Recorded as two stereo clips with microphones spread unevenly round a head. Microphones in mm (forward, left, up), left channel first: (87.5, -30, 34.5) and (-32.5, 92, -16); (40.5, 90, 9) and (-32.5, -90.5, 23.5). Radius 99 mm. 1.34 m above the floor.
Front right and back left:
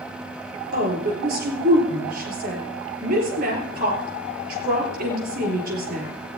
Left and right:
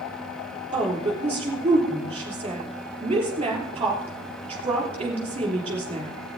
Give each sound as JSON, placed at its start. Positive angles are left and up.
{"t": 0.7, "sound": "a woman speaking", "azimuth_deg": 180, "distance_m": 3.5}